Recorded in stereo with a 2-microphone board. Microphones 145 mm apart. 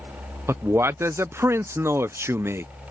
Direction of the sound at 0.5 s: 20° right (ahead or behind).